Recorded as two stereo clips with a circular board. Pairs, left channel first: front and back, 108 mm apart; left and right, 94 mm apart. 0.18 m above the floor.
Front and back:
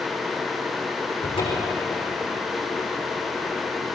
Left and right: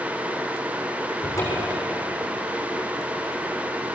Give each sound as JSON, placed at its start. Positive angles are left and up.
{"t": 1.2, "sound": "a cupboard door", "azimuth_deg": 35, "distance_m": 6.5}